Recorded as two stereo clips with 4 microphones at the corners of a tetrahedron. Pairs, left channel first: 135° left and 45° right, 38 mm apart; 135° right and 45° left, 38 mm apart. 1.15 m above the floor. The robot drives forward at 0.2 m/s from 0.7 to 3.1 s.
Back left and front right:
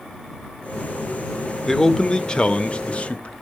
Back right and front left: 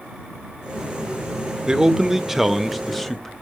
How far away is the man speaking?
About 0.5 m.